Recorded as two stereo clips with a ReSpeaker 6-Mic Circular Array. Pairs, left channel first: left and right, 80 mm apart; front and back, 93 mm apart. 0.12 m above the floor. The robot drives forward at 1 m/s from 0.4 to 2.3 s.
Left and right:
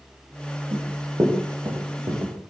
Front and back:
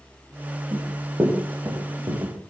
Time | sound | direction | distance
0.7 | running footsteps | 125° right | 9 m